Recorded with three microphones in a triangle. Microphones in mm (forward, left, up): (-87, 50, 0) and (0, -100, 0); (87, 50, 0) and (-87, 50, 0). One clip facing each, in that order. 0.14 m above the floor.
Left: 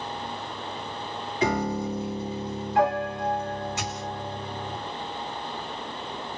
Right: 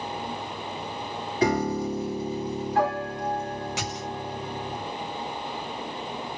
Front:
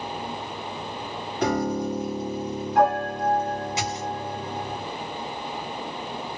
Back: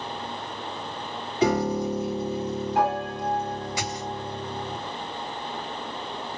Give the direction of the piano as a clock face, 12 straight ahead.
3 o'clock.